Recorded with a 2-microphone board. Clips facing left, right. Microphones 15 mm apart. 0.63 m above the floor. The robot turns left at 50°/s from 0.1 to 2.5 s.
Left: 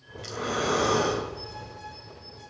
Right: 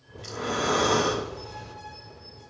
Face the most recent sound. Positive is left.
turn(degrees=-100)